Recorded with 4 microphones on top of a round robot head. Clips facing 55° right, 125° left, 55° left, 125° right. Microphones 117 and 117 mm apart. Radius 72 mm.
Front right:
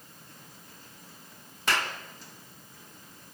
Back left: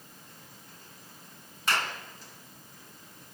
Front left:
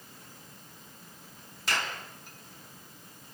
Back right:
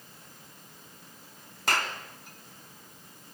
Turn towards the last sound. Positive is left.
turn(degrees=-80)